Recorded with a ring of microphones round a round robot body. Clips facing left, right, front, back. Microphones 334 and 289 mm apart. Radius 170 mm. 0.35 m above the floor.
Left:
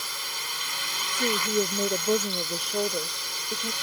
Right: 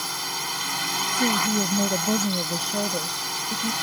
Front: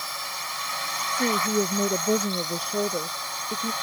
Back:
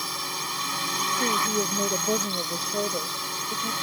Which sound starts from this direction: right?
A woman speaking, at 1.1 s.